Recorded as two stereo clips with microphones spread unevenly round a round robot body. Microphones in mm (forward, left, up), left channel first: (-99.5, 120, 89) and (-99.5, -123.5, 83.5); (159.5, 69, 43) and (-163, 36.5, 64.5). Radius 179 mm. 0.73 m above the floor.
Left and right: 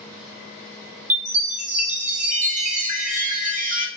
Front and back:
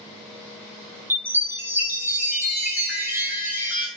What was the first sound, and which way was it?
A chime, 90° right.